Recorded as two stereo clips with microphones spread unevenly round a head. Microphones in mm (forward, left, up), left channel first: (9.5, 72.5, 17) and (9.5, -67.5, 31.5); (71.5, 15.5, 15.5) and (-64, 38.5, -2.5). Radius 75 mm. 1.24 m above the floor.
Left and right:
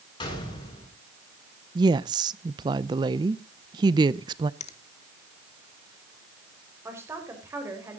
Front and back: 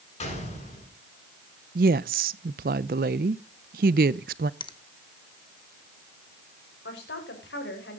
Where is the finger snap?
45° left, 1.1 m.